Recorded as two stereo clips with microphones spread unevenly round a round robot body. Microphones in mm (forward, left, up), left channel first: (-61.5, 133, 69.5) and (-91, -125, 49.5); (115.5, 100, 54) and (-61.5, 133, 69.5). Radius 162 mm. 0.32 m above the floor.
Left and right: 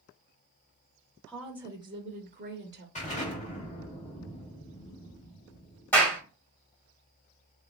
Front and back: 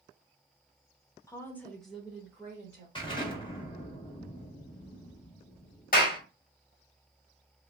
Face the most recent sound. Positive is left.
turn(degrees=0)